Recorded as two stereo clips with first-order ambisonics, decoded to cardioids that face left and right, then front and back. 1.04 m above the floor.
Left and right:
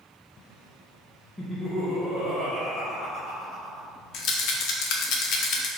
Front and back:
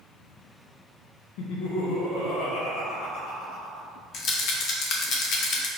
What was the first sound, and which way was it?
Laughter, 5° left.